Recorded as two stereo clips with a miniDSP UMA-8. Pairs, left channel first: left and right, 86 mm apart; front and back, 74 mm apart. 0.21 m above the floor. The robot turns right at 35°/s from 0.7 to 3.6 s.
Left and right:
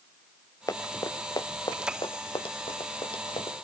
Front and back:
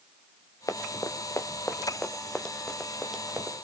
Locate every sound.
0.7 s running footsteps: 40° left, 2 m; by 3.6 s 110° left, 4.5 m